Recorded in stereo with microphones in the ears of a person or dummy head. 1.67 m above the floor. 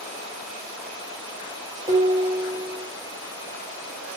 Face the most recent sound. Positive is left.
turn(degrees=-20)  # may be behind; listen again after turning